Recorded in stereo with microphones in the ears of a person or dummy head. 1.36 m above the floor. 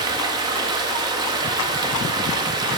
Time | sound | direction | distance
0.0 | running water | 20° right (ahead or behind) | 1.2 m